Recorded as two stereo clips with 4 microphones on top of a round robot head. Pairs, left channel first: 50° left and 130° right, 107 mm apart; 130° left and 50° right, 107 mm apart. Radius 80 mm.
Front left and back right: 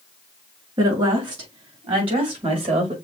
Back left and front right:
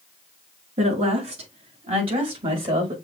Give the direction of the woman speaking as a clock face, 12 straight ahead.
3 o'clock.